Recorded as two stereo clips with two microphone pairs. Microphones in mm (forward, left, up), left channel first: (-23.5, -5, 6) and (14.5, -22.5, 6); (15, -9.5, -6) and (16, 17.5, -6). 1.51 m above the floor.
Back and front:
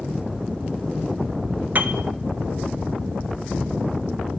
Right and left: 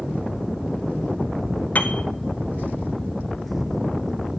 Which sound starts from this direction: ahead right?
A piano, at 1.8 s.